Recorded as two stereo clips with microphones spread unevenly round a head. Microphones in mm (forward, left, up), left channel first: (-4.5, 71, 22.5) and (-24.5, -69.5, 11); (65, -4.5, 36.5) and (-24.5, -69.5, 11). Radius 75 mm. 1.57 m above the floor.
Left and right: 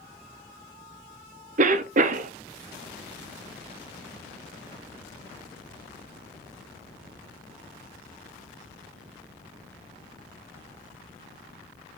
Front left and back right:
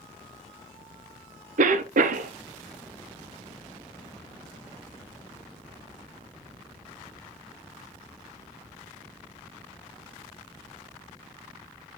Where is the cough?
135° right, 0.5 m.